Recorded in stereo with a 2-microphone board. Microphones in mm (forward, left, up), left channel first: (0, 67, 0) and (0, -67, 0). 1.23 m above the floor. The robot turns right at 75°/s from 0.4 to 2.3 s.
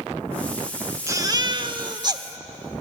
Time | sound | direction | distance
1.1 | a baby crying | 140° right | 1.0 m